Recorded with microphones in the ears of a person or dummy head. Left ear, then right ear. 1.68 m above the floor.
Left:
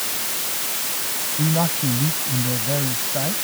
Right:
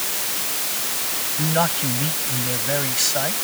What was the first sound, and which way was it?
A man speaking, 55° right (ahead or behind).